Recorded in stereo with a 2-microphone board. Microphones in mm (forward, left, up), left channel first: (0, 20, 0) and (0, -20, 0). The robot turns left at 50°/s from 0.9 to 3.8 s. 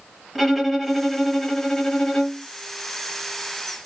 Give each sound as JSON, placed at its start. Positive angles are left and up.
{"t": 0.3, "sound": "a violin", "side_deg": 0, "distance_m": 1.1}